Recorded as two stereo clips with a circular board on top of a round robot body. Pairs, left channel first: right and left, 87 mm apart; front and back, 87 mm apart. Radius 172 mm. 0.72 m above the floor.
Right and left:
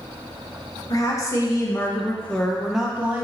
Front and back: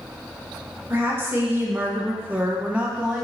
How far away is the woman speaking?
About 1.5 m.